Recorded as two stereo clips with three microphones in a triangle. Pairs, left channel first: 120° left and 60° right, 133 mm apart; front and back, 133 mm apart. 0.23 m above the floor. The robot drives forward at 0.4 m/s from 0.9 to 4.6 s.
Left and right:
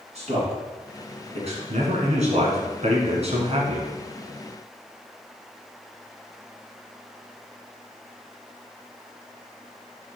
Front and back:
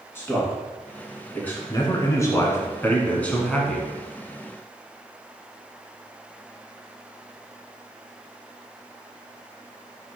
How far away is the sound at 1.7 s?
About 2 m.